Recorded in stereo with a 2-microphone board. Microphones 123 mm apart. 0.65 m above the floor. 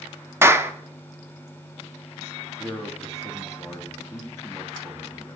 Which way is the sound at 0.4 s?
20° right (ahead or behind).